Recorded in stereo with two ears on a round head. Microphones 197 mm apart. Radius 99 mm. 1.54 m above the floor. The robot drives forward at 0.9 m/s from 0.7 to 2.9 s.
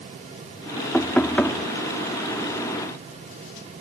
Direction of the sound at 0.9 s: 5° left (ahead or behind).